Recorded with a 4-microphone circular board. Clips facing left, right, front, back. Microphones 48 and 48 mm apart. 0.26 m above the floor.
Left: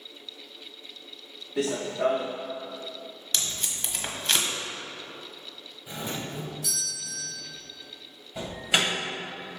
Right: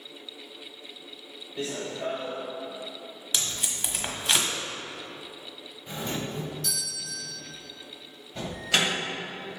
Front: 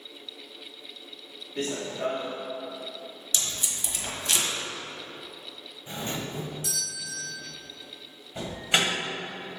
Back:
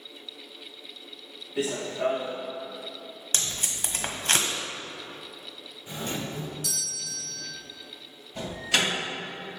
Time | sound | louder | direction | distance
1.6 | running footsteps | left 6 dB, back 2 dB | 95° left | 1.1 m
3.3 | tape being pulled | right 1 dB, back 1 dB | 175° right | 1.2 m
5.9 | a doorbell | right 2 dB, even | 10° left | 1.8 m
8.3 | an alarm | even, front 1 dB | 35° left | 2 m